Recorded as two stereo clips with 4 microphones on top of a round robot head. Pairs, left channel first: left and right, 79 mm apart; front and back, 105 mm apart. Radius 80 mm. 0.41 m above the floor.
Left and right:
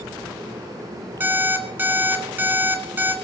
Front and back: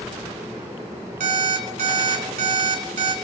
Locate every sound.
1.2 s an alarm clock: 155° right, 2 m